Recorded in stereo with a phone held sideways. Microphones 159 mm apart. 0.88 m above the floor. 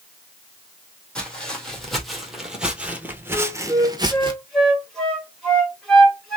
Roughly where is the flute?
Centre.